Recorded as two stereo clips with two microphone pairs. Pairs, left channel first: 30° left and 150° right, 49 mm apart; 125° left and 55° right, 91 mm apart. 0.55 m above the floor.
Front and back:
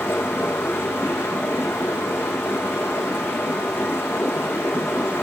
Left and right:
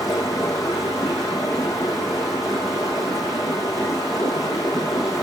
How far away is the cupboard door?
I don't hear a cupboard door.